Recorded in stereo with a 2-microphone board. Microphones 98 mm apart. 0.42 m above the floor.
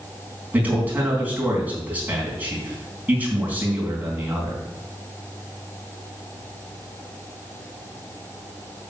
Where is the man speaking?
15° right (ahead or behind), 4 m.